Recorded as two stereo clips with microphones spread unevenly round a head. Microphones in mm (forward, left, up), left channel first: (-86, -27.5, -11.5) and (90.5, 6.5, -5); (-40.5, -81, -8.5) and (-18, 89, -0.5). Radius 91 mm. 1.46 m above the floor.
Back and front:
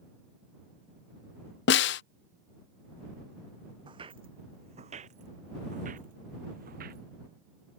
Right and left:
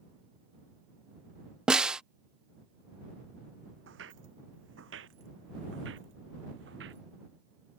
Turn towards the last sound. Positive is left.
turn(degrees=55)